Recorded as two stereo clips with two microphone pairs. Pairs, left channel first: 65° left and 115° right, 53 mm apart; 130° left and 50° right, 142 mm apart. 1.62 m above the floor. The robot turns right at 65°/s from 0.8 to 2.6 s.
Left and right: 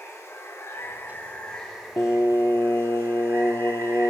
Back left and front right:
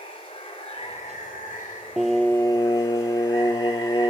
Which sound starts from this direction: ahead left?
Singing, at 2.0 s.